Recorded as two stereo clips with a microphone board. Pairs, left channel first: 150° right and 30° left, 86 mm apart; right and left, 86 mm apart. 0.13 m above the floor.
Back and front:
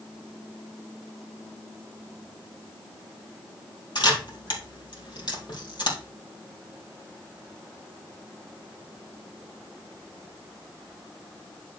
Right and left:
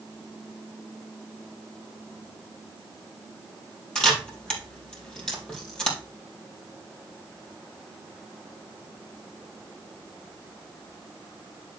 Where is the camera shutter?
170° right, 3.5 m.